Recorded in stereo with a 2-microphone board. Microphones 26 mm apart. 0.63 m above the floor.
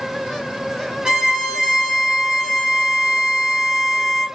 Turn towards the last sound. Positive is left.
turn(degrees=-25)  # may be behind; listen again after turning